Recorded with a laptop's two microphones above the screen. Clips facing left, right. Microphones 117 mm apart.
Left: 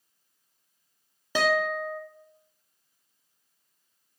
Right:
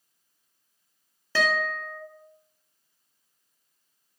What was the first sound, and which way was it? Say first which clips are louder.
A guitar: left 2 dB; 15° left (ahead or behind).